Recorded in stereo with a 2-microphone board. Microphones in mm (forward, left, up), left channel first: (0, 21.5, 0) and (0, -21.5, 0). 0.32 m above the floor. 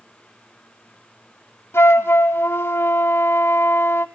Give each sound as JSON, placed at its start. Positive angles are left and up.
{"t": 1.7, "sound": "a flute", "side_deg": 65, "distance_m": 1.0}